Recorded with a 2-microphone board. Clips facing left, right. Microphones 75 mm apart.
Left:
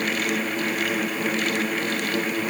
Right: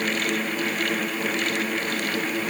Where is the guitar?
I don't hear a guitar.